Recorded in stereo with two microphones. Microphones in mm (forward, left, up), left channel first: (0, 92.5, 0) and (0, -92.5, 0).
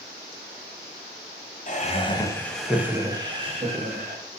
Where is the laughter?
45° left (ahead or behind), 0.9 m; by 4.2 s 45° right (ahead or behind), 1.5 m.